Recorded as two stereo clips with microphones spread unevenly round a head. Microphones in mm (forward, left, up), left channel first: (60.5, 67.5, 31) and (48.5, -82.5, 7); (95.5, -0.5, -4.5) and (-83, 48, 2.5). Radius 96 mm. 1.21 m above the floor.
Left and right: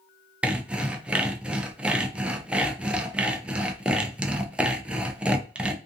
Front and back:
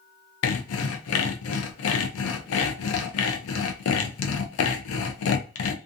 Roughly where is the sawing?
Ahead.